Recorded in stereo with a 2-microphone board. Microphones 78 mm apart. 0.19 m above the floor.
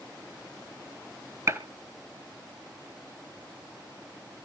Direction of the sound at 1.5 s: 35° right (ahead or behind).